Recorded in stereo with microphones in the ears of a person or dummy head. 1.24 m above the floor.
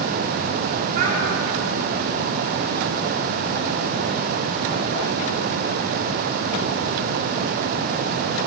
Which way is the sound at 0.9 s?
55° right (ahead or behind).